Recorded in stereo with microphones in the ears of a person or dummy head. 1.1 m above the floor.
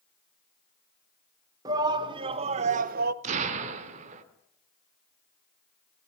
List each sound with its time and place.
1.6 s a shout: 20° right (ahead or behind), 1.9 m; by 3.1 s 50° right (ahead or behind), 1.0 m
3.2 s an explosion: 40° right (ahead or behind), 2 m